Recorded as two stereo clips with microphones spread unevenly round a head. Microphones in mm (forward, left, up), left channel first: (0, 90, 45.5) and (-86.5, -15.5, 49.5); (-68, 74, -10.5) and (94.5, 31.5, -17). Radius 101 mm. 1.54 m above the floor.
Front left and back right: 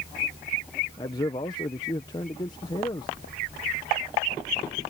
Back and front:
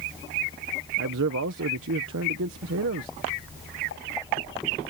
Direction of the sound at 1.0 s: 15° right.